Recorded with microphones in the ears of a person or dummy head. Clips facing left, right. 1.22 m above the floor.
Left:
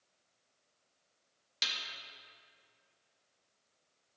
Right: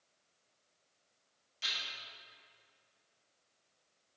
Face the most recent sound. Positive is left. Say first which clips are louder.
# left 2 dB
turn(degrees=80)